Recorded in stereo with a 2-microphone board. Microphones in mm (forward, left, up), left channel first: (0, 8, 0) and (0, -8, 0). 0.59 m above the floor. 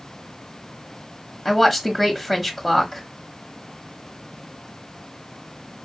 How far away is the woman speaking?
About 0.8 m.